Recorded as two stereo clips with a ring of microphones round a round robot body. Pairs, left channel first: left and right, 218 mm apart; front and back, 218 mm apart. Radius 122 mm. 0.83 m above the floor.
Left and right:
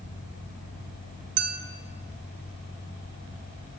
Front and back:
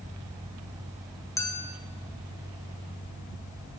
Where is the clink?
80° right, 1.7 m.